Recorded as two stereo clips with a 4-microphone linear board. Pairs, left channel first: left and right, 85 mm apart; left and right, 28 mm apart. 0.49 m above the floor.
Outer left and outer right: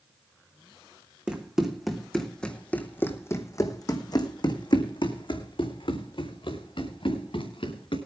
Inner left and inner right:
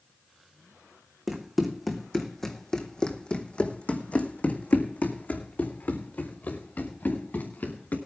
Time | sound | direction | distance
1.3 | running footsteps | 10° right (ahead or behind) | 2.0 m